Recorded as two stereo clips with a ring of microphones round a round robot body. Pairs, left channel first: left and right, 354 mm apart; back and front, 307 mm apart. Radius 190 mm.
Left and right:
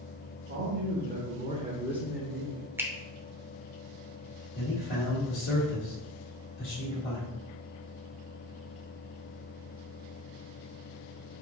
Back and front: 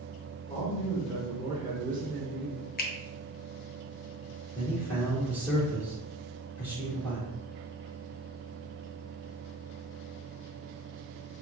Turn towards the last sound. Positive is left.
turn(degrees=100)